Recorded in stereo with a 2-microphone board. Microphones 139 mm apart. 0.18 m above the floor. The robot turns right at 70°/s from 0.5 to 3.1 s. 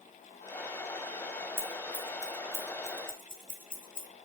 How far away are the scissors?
About 1.3 m.